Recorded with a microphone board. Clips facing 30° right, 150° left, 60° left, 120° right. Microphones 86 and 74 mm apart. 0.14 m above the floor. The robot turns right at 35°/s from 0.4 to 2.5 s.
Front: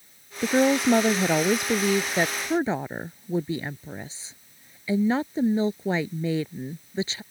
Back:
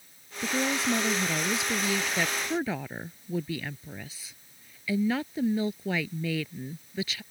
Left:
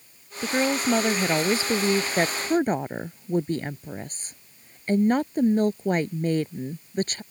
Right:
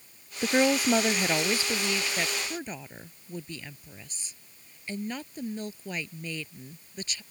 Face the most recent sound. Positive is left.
turn(degrees=25)